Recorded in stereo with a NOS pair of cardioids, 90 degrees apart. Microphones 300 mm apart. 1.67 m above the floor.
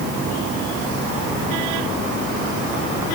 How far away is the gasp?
I don't hear a gasp.